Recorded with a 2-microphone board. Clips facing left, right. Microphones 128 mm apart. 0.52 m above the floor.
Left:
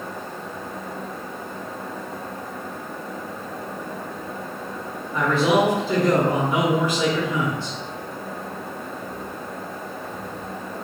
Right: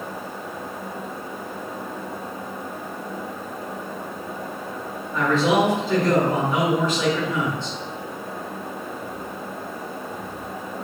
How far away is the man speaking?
About 0.8 m.